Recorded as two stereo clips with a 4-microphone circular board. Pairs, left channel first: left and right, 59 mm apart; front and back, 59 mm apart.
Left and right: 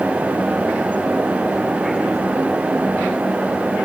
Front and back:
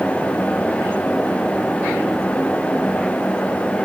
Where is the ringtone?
No ringtone in this recording.